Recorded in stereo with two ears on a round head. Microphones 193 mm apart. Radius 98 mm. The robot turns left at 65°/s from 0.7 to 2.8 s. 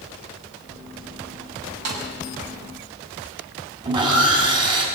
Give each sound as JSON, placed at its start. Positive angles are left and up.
{"t": 1.9, "sound": "a snare drum", "side_deg": -85, "distance_m": 6.0}
{"t": 3.8, "sound": "sawing", "side_deg": -20, "distance_m": 5.0}